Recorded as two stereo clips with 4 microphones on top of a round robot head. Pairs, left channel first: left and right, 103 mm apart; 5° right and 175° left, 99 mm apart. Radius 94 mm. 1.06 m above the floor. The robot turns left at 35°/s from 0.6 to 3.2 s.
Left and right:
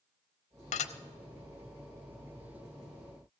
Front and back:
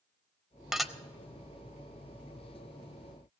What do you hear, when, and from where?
0.7 s dishes clattering: 90° left, 0.8 m; by 0.9 s 85° left, 0.8 m